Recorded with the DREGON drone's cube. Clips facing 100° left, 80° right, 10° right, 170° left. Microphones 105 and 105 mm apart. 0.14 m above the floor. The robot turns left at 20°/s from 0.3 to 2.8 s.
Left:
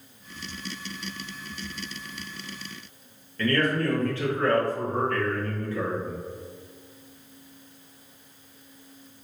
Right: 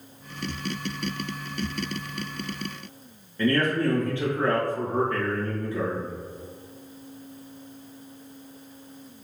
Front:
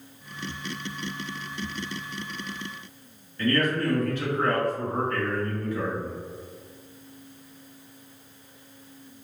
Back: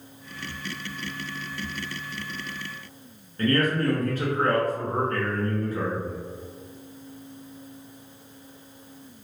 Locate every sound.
3.4 s a man speaking: 150° right, 1.9 m